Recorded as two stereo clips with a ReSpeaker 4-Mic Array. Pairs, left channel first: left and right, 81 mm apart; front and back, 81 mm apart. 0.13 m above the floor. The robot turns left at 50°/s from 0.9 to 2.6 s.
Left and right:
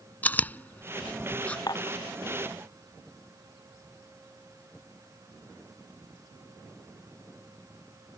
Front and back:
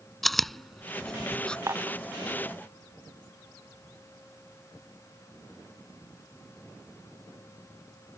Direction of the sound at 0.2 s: 85° left.